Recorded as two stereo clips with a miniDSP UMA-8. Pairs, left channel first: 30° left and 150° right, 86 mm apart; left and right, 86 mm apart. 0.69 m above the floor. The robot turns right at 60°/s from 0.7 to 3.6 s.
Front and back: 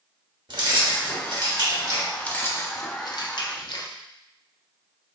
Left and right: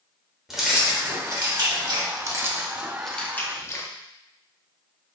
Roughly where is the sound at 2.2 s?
Ahead right.